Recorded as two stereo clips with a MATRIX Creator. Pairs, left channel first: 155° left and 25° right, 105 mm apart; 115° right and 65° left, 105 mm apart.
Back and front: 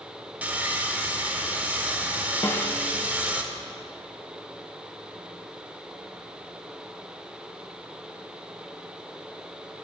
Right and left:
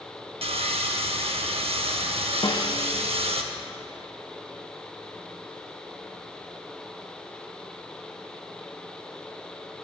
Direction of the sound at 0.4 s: 55° left.